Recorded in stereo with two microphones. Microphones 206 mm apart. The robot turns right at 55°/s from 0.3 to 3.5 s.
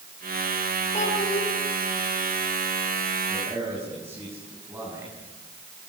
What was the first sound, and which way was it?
A child speaking, 30° left (ahead or behind).